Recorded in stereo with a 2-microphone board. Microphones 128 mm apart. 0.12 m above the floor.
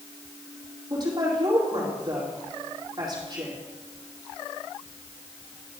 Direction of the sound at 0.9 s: 35° right (ahead or behind).